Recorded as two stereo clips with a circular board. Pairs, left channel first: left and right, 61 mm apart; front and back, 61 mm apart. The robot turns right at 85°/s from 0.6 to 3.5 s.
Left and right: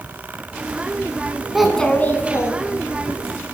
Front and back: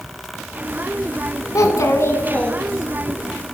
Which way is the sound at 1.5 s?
10° right.